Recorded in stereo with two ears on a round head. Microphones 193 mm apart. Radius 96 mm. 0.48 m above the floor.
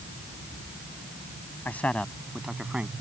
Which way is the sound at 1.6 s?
10° left (ahead or behind).